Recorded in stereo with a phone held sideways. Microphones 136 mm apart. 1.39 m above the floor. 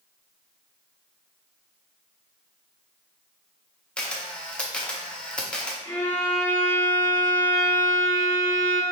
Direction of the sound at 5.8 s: 20° left (ahead or behind).